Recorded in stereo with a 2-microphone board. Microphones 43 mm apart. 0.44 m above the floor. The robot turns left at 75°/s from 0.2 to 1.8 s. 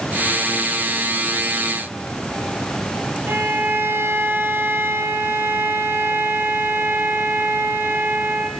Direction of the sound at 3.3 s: 65° right (ahead or behind).